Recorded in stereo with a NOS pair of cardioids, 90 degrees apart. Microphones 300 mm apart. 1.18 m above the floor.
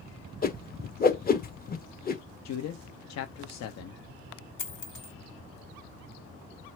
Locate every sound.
0.4 s a whoosh: 30° left, 0.9 m
2.5 s a man speaking: 60° left, 0.8 m
4.6 s a dropped coin: 40° left, 1.7 m